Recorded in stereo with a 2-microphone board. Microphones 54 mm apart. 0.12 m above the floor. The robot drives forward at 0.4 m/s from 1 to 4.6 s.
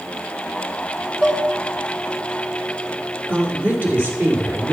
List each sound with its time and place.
1.2 s dishes clattering: 25° right (ahead or behind), 0.9 m
3.3 s a woman speaking: 40° right (ahead or behind), 2 m; by 4.7 s 35° right (ahead or behind), 2.5 m